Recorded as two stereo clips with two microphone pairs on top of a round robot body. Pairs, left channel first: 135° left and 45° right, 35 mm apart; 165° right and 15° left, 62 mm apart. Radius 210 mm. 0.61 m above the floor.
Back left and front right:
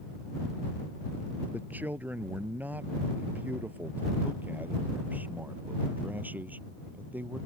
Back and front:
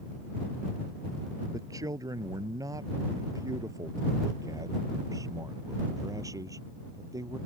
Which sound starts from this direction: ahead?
A man speaking, at 1.5 s.